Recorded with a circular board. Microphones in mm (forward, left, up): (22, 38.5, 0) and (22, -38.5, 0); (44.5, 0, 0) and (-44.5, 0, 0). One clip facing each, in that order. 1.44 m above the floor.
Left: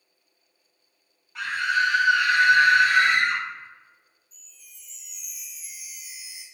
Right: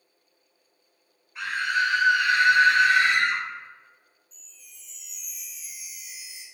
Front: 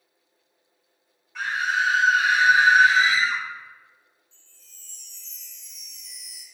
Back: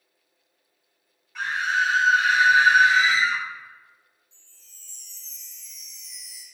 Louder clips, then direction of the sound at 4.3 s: Even, front 2 dB; 10° left.